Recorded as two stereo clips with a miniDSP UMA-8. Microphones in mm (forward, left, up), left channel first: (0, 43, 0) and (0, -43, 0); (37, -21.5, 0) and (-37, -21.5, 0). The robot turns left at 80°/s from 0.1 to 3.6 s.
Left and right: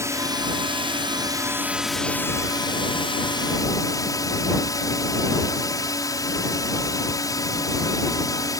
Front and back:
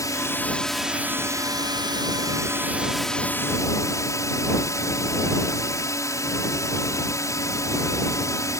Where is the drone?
35° right; by 8.6 s 45° left.